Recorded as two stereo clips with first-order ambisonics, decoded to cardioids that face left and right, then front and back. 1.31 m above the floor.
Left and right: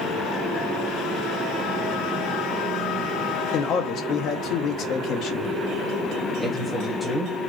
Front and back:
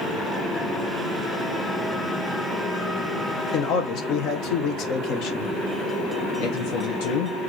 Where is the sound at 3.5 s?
40° left, 1.0 m.